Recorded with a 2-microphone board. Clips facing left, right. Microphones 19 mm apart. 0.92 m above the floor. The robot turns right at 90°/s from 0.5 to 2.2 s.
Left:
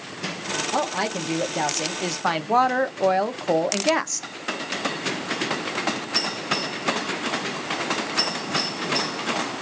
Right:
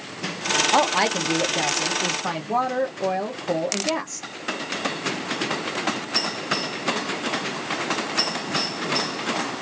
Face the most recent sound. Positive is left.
turn(degrees=75)